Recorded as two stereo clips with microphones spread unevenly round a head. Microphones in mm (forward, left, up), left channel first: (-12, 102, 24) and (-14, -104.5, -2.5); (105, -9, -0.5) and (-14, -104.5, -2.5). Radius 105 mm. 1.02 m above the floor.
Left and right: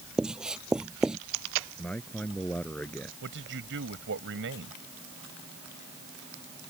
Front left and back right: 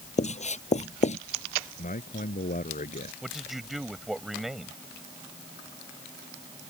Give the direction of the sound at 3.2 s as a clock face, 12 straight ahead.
2 o'clock.